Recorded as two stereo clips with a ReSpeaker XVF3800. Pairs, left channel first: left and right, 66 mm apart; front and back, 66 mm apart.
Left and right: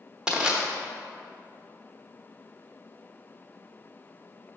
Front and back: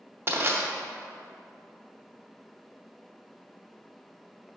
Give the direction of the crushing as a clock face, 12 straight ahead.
5 o'clock.